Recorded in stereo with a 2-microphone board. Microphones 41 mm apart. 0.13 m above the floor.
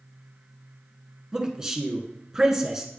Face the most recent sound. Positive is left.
turn(degrees=-15)  # may be behind; listen again after turning